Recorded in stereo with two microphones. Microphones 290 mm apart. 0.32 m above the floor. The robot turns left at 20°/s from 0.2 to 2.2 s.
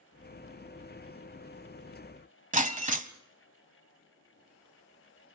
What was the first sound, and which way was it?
Breaking glass, 25° right (ahead or behind).